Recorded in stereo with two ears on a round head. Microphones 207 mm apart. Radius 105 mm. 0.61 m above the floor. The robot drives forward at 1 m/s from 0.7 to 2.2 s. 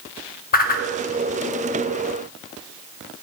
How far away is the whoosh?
About 0.7 m.